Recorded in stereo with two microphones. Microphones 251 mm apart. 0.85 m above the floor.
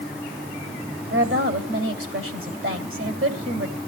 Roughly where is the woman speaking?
Right.